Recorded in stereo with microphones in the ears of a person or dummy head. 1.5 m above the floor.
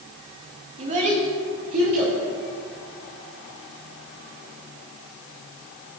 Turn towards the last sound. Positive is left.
turn(degrees=-50)  # may be behind; listen again after turning